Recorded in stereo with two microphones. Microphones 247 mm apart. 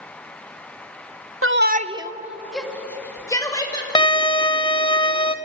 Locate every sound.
1.4 s a shout: 60° right (ahead or behind), 0.8 m; by 3.9 s 15° left (ahead or behind), 3 m
4.0 s a violin: 20° left (ahead or behind), 0.8 m